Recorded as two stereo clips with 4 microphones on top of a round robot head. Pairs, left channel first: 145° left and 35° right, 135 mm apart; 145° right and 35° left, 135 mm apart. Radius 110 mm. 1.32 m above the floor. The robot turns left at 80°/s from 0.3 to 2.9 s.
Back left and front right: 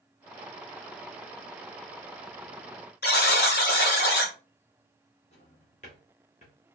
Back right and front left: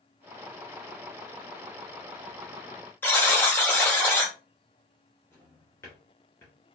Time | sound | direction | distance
3.0 | a buzzer | 140° left | 0.6 m
5.3 | a drawer | 150° left | 0.7 m